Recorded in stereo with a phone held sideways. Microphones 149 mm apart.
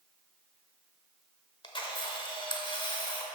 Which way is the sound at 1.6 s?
30° left (ahead or behind).